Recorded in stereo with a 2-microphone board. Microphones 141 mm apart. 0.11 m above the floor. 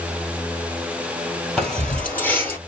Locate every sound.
1.6 s keys jangling: 5° left (ahead or behind), 1.9 m; by 2.6 s 20° left (ahead or behind), 1.6 m